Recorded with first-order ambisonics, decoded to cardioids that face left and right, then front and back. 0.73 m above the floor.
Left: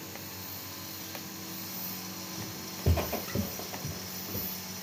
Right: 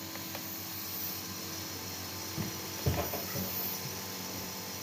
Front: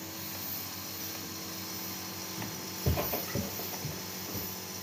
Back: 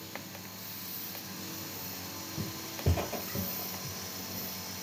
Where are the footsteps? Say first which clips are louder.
Even, back 2 dB; 145° right, 0.8 m; by 4.5 s 65° left, 1.7 m.